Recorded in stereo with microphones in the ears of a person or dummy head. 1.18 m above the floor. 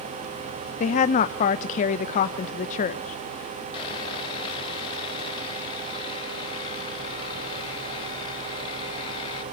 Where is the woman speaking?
35° left (ahead or behind), 0.6 m.